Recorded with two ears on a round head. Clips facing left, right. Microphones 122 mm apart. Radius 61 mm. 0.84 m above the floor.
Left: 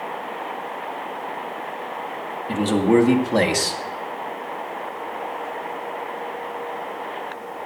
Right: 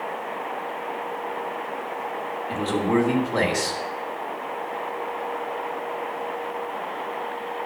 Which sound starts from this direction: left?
A man speaking, at 2.5 s.